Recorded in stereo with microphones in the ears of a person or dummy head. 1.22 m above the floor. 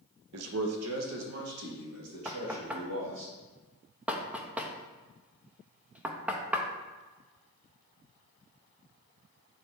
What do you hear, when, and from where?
0.3 s a man speaking: 80° right, 0.8 m
2.2 s knocking: 10° right (ahead or behind), 0.7 m